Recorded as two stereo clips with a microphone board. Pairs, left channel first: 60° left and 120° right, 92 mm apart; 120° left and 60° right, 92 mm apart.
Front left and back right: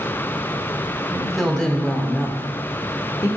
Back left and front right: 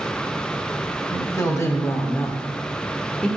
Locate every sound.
1.1 s a woman speaking: 155° left, 1.5 m; by 3.3 s 50° left, 1.3 m